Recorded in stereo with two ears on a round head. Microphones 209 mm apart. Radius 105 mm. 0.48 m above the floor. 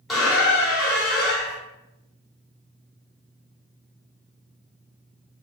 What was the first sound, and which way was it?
A squeak, centre (ahead or behind).